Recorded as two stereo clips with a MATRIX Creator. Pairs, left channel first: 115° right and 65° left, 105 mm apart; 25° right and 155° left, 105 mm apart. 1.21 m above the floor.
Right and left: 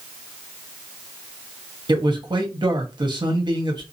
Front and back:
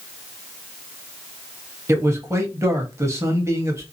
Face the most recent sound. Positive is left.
turn(degrees=100)